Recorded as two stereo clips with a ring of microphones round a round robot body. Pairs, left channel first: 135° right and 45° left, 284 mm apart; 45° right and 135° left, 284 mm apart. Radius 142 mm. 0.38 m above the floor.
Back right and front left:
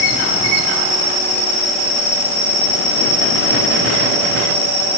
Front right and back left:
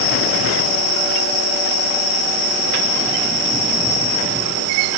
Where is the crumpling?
I don't hear crumpling.